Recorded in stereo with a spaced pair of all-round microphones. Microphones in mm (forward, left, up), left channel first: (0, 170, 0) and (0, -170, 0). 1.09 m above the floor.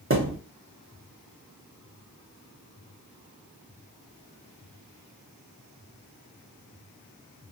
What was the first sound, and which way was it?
A thud, 40° right (ahead or behind).